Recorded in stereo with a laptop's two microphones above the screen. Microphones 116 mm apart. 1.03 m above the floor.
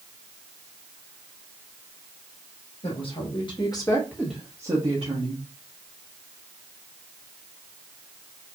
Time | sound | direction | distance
2.8 | a woman speaking | 55° left (ahead or behind) | 2.5 m